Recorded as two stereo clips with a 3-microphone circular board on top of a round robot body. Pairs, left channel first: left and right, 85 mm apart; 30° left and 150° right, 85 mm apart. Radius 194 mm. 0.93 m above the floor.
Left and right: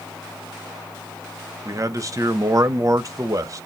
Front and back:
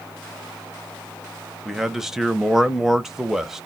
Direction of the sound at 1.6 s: 65° right.